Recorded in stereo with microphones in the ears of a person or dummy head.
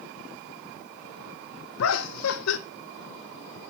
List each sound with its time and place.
1.8 s laughter: 70° left (ahead or behind), 0.7 m